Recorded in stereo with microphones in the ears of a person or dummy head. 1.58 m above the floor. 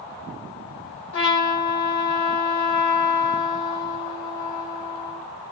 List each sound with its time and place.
1.1 s a trumpet: 60° left (ahead or behind), 0.9 m